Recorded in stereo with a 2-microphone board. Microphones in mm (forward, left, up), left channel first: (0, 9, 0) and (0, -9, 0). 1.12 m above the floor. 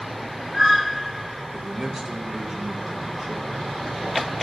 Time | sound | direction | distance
1.5 | a man speaking | 15° right (ahead or behind) | 2.5 m